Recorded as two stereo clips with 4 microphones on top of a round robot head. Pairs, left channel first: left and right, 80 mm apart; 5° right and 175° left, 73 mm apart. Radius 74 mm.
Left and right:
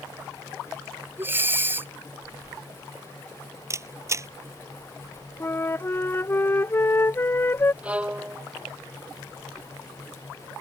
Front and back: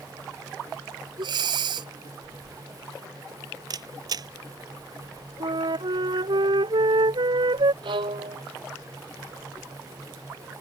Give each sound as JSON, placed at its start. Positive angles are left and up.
{"t": 1.2, "sound": "breathing", "azimuth_deg": -155}
{"t": 3.7, "sound": "a camera shutter", "azimuth_deg": -145}
{"t": 5.4, "sound": "a flute", "azimuth_deg": 150}
{"t": 7.8, "sound": "a violin", "azimuth_deg": -165}